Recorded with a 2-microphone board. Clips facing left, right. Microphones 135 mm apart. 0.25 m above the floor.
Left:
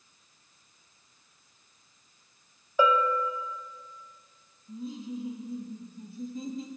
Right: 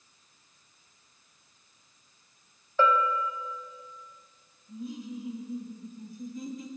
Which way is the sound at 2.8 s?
15° left (ahead or behind).